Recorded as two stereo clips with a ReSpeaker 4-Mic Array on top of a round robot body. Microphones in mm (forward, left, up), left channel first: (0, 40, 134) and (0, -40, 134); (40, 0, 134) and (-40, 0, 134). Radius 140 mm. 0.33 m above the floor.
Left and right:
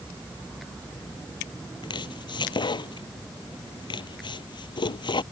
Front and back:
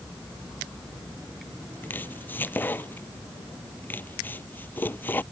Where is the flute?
No flute in this recording.